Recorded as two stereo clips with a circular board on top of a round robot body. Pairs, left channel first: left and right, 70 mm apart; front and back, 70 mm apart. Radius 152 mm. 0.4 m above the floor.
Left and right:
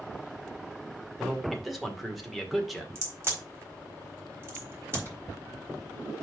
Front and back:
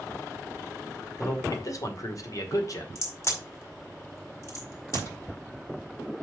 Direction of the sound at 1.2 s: Straight ahead.